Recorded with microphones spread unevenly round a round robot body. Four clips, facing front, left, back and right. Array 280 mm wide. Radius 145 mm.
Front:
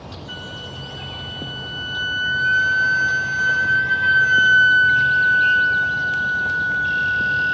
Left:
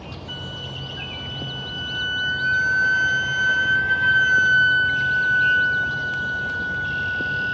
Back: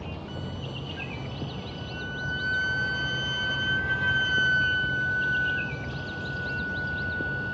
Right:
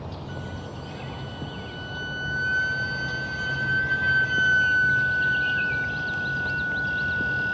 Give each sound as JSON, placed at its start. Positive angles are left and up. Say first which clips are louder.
{"t": 0.3, "sound": "a flute", "louder": "even, front 2 dB", "azimuth_deg": 125, "distance_m": 1.5}